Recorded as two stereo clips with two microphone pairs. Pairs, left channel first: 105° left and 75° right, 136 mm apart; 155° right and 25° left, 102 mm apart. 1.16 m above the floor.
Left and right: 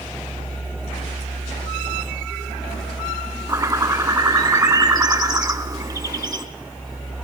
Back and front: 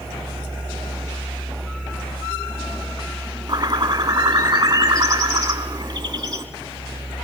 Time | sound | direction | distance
3.5 | a bird | 15° right | 1.7 m